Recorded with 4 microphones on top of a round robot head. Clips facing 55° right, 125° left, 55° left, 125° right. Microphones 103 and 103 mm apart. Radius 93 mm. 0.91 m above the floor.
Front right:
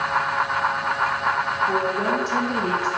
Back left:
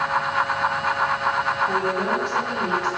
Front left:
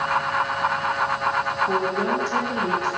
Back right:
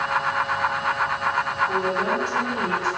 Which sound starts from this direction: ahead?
A woman speaking, at 1.7 s.